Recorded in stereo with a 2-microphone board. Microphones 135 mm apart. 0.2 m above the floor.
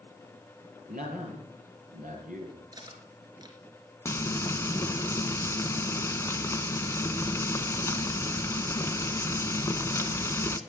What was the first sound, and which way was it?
A man speaking, 75° right (ahead or behind).